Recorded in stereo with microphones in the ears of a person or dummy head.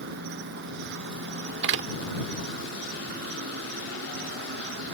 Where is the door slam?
65° right (ahead or behind).